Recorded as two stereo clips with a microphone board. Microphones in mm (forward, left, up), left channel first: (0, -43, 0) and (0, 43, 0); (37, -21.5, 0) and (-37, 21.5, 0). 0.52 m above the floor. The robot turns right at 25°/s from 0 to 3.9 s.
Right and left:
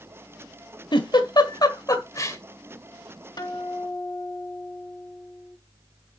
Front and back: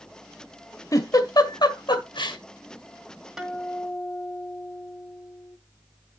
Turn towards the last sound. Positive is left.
turn(degrees=-115)